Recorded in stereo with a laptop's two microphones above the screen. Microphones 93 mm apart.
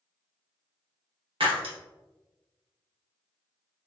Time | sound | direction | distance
1.4 | breaking glass | 70° right (ahead or behind) | 1.0 m